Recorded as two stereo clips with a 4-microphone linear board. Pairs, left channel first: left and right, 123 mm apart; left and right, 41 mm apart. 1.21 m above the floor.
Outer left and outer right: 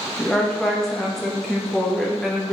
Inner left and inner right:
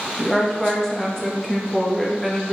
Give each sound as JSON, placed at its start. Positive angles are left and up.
{"t": 0.2, "sound": "a woman speaking", "side_deg": 0, "distance_m": 0.9}